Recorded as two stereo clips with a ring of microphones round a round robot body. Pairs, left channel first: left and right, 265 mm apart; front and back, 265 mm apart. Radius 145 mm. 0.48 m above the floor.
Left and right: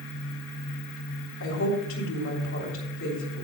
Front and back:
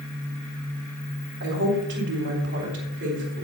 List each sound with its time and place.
1.4 s a woman speaking: 130° left, 3 m